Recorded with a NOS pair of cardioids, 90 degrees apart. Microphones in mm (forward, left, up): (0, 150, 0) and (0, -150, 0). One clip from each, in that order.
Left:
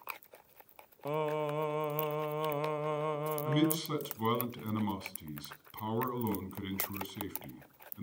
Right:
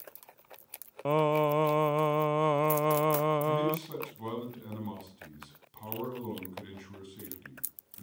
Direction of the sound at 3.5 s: 40° left.